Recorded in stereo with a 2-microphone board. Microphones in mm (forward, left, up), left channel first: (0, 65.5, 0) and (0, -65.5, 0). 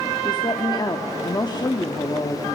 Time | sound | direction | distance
0.2 | a woman speaking | 35° left (ahead or behind) | 1.2 m